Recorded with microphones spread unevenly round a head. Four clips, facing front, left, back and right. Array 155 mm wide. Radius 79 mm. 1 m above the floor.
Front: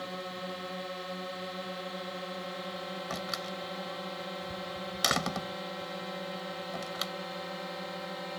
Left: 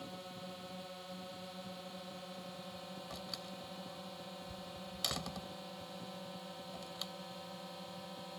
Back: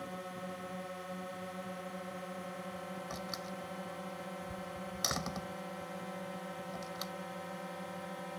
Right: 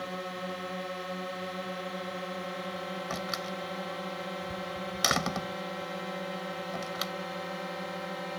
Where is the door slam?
50° right.